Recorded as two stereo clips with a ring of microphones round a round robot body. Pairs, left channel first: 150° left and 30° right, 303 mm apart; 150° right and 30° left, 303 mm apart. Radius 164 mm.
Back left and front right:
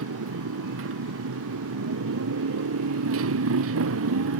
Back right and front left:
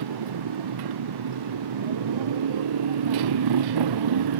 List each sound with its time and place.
0.0 s a motorcycle: 20° left